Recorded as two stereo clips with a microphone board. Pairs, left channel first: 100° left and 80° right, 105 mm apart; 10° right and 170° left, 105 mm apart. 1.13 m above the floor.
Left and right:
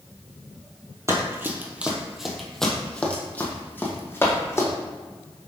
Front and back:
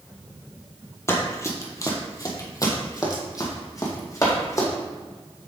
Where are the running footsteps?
45° right, 1.3 m; by 4.7 s 40° left, 2.5 m.